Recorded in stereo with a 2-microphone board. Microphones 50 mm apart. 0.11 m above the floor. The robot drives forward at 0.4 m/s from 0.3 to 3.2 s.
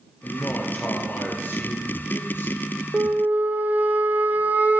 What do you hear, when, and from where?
0.2 s a man speaking: 35° left (ahead or behind), 2 m; by 2.7 s 45° left (ahead or behind), 1.7 m
2.9 s a flute: 40° right (ahead or behind), 0.6 m; by 4.8 s 35° right (ahead or behind), 0.7 m